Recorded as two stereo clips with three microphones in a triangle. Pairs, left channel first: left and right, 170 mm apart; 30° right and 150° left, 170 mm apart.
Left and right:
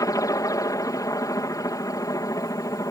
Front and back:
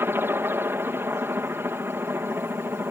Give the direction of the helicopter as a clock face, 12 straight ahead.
9 o'clock.